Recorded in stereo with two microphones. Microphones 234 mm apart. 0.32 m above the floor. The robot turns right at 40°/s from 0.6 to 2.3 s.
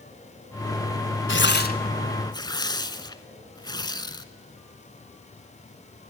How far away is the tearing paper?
About 0.8 m.